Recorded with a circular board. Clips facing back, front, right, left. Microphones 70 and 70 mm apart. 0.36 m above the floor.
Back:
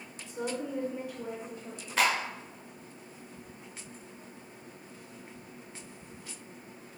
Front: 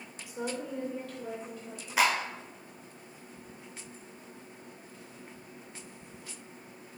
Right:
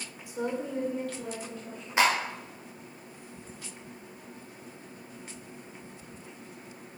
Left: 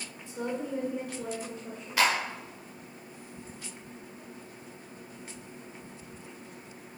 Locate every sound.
0.3 s a woman speaking: 45° right, 0.8 m; by 2.0 s 135° left, 1.3 m
2.0 s a clap: 65° right, 0.9 m